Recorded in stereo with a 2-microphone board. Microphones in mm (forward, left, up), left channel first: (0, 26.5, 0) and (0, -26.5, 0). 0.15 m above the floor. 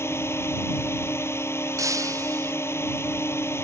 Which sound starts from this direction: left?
A drone, at 0.0 s.